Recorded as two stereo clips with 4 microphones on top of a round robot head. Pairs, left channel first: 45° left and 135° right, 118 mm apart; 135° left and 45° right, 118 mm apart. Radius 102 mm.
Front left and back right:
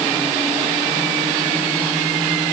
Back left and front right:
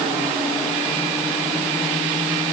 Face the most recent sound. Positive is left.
No sound to turn to.